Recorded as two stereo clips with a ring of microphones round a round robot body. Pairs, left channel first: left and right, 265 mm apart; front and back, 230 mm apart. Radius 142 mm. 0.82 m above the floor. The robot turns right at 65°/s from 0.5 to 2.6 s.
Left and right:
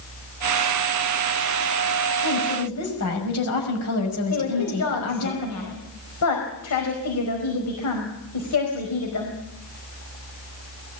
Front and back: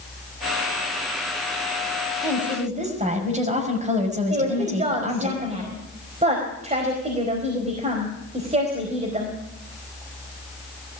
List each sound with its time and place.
2.2 s a woman speaking: 95° left, 6 m; by 5.3 s 120° left, 6 m
4.3 s a woman speaking: 120° left, 4.5 m